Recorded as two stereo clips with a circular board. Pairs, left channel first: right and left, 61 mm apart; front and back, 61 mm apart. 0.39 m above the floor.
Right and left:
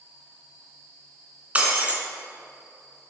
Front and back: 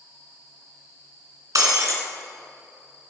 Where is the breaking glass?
160° left, 2.5 m.